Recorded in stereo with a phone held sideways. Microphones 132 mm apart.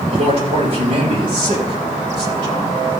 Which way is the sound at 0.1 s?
45° right (ahead or behind).